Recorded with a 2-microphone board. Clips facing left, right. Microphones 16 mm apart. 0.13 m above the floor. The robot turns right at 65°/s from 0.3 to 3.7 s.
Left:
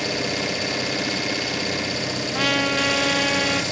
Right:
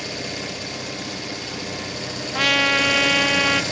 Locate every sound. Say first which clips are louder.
0.0 s an engine running: left 5 dB; 30° left, 1.1 m; by 3.7 s 110° right, 1.1 m
2.3 s a trumpet: right 4 dB; 165° right, 0.5 m; by 3.6 s 80° right, 0.5 m